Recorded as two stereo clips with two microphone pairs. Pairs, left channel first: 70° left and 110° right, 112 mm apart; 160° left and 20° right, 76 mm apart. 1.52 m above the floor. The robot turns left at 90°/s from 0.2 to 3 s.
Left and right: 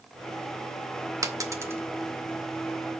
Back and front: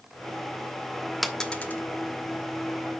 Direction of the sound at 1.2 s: 110° right.